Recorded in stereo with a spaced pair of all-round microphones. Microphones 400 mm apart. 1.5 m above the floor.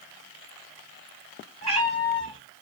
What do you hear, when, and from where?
1.6 s a cat meowing: 40° right (ahead or behind), 2.5 m